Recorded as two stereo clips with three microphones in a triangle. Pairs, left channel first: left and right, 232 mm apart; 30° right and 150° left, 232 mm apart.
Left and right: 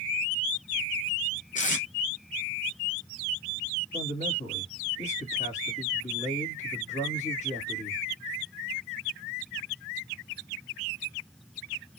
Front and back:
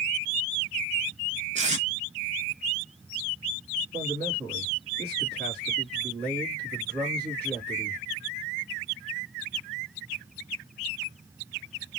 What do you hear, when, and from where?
1.6 s tape being pulled: 115° left, 0.7 m
3.9 s a man speaking: 130° left, 2.0 m